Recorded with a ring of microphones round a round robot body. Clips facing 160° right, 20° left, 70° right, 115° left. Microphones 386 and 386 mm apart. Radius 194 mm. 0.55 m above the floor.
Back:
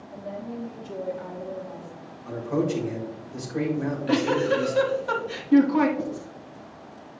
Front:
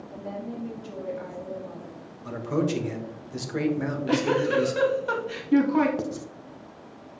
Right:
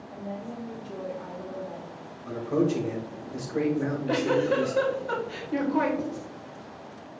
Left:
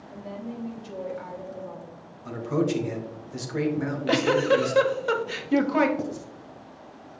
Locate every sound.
0.1 s a woman speaking: 70° left, 2.5 m
2.2 s a man speaking: 55° left, 1.5 m
3.8 s a giggle: 110° left, 1.2 m
6.0 s writing: 35° left, 0.8 m